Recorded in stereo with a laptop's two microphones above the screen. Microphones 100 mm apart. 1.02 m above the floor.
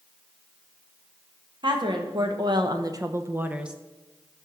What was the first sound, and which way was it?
A woman speaking, 50° right (ahead or behind).